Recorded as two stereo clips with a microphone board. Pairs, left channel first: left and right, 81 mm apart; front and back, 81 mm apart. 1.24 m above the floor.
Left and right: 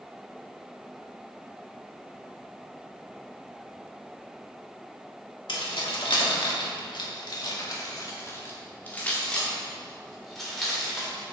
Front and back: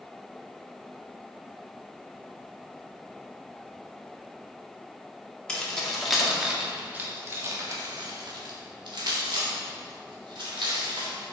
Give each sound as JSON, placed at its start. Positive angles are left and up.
{"t": 5.5, "sound": "keys jangling", "azimuth_deg": 80, "distance_m": 1.9}